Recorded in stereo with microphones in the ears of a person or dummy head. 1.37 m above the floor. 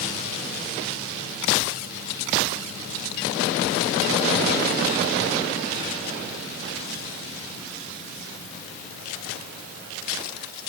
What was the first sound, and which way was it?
Only background noise.